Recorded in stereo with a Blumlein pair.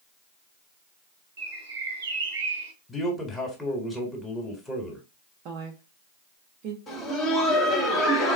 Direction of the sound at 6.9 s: 20° left.